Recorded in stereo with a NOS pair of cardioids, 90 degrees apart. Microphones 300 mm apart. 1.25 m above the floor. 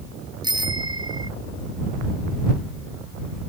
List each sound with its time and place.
0.4 s a bicycle bell: 15° right